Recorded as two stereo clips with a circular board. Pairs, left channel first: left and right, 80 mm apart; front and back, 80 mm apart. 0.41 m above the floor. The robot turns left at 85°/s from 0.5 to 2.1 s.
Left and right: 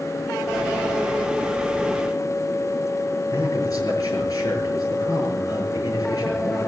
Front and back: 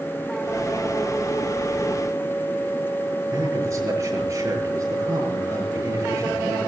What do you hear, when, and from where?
3.3 s a man speaking: 130° left, 7 m